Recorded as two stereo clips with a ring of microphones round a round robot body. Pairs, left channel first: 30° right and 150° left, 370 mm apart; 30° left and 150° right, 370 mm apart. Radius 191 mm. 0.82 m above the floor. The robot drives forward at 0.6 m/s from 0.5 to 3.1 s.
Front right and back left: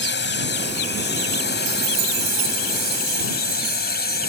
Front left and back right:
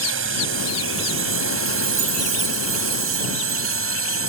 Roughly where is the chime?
Behind.